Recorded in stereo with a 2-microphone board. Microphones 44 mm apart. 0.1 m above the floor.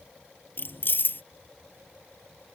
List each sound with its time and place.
0.6 s keys jangling: 55° left (ahead or behind)